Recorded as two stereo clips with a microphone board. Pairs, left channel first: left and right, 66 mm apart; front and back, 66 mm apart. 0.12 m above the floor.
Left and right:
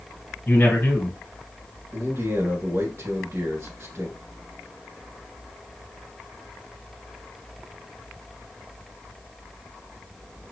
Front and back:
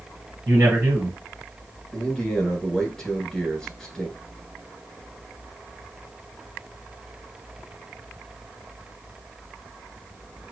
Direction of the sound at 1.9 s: 80° right.